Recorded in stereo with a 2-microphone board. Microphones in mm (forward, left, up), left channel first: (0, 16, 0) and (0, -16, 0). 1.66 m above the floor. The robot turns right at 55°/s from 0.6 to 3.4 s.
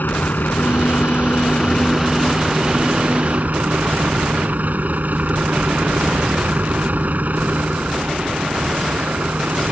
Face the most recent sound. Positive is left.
turn(degrees=-120)